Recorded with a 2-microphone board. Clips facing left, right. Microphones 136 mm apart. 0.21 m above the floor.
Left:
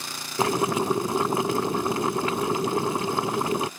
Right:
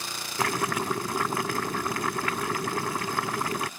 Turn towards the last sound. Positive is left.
turn(degrees=25)  # may be behind; listen again after turning